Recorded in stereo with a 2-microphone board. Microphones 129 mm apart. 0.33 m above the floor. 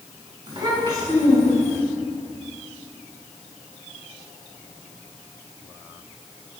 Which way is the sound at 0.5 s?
40° right (ahead or behind).